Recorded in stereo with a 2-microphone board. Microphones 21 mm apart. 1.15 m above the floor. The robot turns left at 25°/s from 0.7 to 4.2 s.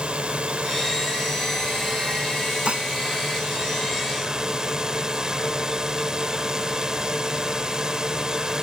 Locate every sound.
0.0 s a drone: 60° right; by 8.7 s 145° right
2.6 s dishes clattering: 50° right (ahead or behind); by 2.9 s 55° right (ahead or behind)